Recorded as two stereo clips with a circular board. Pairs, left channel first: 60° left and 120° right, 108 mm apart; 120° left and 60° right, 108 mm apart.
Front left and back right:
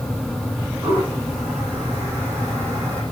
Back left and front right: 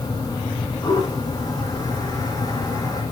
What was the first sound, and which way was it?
A toilet flushing, 175° left.